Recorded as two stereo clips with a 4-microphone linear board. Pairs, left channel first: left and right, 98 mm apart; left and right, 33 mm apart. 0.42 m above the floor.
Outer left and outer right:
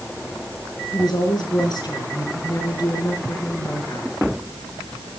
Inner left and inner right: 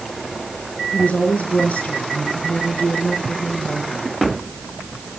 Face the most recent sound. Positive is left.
turn(degrees=45)  # may be behind; listen again after turning